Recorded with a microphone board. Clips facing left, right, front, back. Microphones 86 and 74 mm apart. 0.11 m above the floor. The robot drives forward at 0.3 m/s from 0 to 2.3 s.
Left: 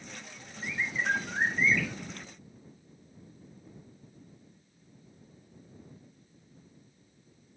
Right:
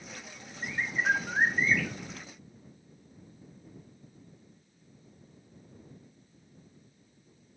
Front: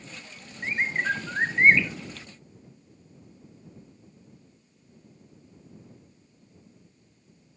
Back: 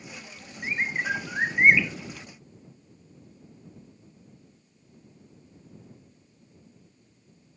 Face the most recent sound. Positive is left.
turn(degrees=-90)